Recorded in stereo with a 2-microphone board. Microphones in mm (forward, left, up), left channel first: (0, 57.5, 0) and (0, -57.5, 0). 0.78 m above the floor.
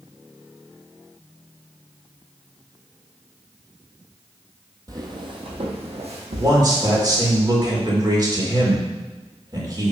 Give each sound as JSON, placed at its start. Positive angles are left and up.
{"t": 4.9, "sound": "footsteps", "side_deg": -35, "distance_m": 1.3}
{"t": 6.4, "sound": "a man speaking", "side_deg": -35, "distance_m": 2.5}